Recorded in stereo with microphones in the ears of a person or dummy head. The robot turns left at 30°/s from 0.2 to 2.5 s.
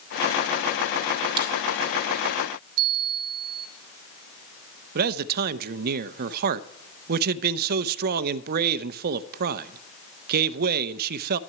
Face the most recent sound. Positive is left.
turn(degrees=-55)  # may be behind; listen again after turning